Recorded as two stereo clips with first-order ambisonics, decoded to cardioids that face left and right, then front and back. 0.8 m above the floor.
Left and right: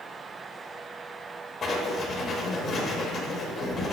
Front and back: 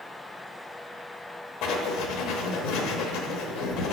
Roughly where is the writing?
Ahead.